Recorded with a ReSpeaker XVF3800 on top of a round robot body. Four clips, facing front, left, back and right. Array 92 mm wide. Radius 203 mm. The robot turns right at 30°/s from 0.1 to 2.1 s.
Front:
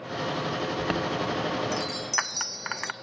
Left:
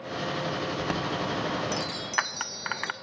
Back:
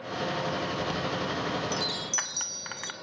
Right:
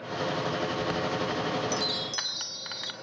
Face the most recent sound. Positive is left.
turn(degrees=55)